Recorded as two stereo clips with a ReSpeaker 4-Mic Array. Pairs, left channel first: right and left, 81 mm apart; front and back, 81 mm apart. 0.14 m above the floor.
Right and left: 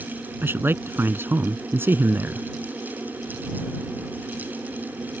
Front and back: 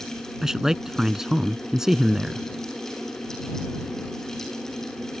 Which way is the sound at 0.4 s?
105° left.